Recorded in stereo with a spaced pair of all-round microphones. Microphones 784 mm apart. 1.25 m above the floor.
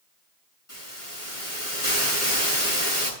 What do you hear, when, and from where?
0.7 s a hiss: 40° left (ahead or behind), 8.5 m